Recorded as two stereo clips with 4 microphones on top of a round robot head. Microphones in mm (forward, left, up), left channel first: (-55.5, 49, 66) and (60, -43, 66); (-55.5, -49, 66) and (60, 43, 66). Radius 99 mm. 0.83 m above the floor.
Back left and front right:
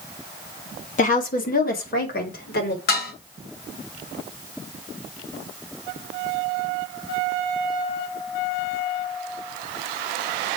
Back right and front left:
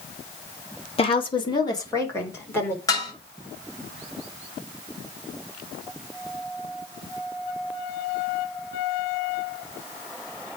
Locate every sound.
1.0 s a woman speaking: 170° left, 2 m; by 2.8 s 140° left, 3.5 m
2.9 s dishes clattering: 150° left, 3.5 m